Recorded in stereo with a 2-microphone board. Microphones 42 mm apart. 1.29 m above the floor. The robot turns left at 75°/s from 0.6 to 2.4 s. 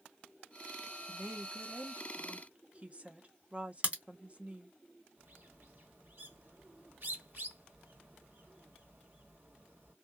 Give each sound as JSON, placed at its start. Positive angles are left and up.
{"t": 1.1, "sound": "a woman speaking", "azimuth_deg": -50, "distance_m": 0.7}
{"t": 3.8, "sound": "a crack", "side_deg": -35, "distance_m": 1.5}
{"t": 5.2, "sound": "a bird", "side_deg": -70, "distance_m": 1.7}